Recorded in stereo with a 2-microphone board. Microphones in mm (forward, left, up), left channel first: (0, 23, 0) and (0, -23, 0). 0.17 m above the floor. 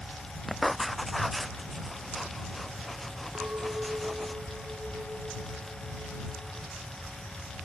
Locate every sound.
0.5 s writing: centre (ahead or behind)
3.4 s a clink: 40° right (ahead or behind)